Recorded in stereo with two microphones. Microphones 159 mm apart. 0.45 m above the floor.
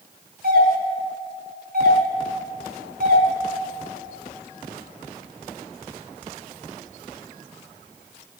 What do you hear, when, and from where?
0.4 s a doorbell: 75° right (ahead or behind), 5 m